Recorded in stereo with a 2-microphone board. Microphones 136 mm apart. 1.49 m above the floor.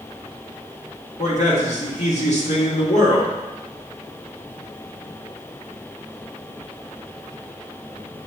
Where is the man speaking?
60° left (ahead or behind), 2 m.